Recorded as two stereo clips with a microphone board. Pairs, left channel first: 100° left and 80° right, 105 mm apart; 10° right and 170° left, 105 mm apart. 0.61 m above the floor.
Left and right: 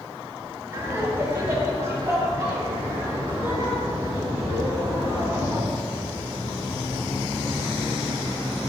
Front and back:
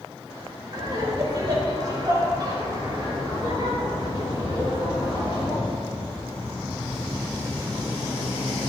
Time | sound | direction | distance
0.7 | laughter | 140° right | 3 m